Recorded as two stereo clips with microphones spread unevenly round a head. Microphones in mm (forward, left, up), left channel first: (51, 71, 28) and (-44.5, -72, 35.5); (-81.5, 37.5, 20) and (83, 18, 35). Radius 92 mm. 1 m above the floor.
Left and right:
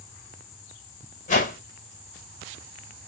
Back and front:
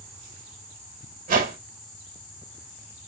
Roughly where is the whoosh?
Ahead left.